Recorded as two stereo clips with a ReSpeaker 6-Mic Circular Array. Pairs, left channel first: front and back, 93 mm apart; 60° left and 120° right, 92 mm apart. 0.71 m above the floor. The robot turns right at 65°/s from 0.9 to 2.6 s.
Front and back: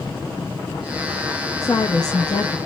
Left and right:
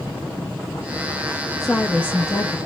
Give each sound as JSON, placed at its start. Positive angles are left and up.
{"t": 1.6, "sound": "a woman speaking", "azimuth_deg": -30, "distance_m": 0.7}